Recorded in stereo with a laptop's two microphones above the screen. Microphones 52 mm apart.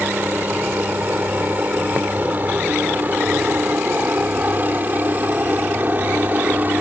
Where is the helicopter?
30° right (ahead or behind); by 6.8 s 35° right (ahead or behind).